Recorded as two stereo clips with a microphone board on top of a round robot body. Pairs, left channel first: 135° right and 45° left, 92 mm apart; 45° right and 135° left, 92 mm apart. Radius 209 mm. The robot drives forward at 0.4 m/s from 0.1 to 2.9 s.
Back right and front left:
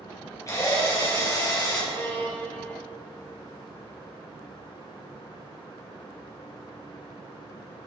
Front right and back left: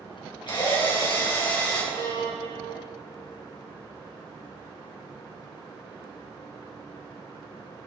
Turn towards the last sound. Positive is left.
turn(degrees=-70)